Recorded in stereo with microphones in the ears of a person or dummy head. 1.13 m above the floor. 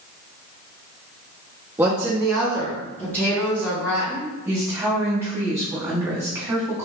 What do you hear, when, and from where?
1.8 s a woman speaking: 15° right (ahead or behind), 0.6 m; by 4.3 s 15° left (ahead or behind), 1.7 m
4.5 s a woman speaking: 10° right (ahead or behind), 1.5 m